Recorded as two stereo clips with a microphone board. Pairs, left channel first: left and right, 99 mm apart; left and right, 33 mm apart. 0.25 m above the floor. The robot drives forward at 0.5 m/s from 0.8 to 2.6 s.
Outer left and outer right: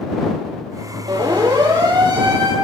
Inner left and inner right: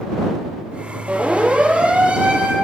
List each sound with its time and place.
1.1 s a siren: 50° right (ahead or behind), 9 m